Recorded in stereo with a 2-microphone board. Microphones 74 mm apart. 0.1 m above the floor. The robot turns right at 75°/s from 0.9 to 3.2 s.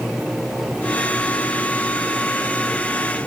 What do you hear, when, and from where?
Only background noise.